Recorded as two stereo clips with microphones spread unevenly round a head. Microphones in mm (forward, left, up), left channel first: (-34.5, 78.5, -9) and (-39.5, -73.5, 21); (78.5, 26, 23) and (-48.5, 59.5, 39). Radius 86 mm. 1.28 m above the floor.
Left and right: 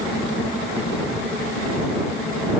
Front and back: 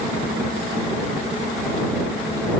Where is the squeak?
No squeak in this recording.